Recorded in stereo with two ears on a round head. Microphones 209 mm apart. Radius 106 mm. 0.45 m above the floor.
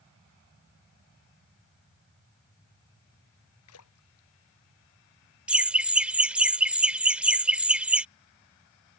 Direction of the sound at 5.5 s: 5° right (ahead or behind).